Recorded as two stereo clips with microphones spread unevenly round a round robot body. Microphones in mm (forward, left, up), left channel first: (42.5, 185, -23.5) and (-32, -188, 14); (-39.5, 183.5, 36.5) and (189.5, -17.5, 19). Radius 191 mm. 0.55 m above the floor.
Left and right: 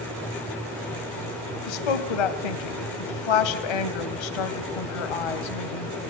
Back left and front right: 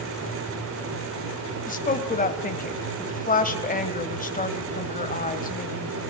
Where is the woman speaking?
75° left, 2.5 m.